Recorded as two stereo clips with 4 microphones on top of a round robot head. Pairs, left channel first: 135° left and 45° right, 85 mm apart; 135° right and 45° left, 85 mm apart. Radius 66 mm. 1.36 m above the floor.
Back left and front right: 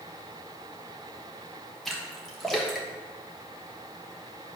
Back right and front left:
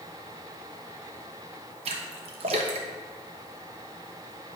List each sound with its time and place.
1.9 s a splash: 45° left, 0.9 m